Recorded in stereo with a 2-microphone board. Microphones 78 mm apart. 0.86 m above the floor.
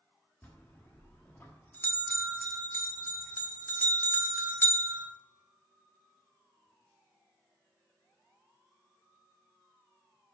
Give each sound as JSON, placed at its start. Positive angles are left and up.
{"t": 0.4, "sound": "a bell", "side_deg": 25, "distance_m": 1.3}